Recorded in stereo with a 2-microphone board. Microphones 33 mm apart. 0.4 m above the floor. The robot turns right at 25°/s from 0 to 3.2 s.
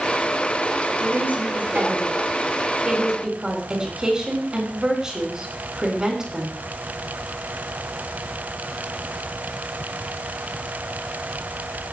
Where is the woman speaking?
80° right, 4 m; by 6.5 s 25° right, 4 m.